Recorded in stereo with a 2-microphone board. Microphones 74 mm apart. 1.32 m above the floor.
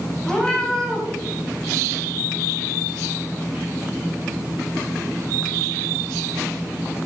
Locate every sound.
0.2 s a cat meowing: 10° left (ahead or behind), 3.5 m